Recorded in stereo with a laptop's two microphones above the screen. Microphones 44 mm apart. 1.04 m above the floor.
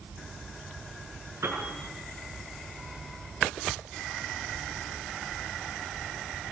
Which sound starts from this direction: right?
A piano, at 1.4 s.